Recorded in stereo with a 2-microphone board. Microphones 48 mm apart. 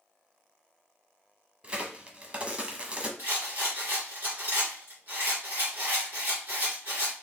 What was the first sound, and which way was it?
A crack, 30° right (ahead or behind).